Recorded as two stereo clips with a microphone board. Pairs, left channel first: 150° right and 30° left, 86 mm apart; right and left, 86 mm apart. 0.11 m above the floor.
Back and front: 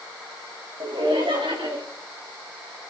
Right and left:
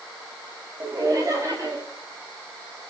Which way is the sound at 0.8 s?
40° left.